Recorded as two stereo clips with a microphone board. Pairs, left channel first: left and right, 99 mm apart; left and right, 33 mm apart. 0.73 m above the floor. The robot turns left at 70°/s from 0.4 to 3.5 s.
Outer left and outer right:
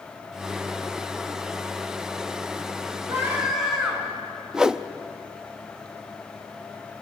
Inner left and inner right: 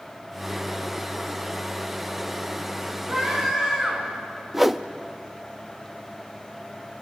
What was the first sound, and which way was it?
A scream, 30° right (ahead or behind).